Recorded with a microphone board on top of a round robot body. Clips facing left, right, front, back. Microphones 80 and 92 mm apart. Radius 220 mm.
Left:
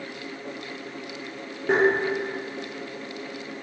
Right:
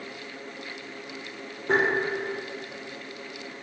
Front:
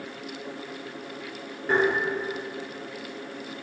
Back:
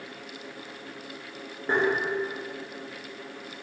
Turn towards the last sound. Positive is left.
turn(degrees=115)